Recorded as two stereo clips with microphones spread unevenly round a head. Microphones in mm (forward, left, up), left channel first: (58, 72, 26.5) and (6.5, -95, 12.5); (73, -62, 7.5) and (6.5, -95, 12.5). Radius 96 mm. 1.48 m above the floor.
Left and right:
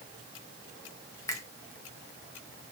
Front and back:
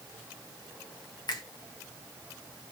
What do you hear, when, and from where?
1.3 s a finger snap: straight ahead, 1.9 m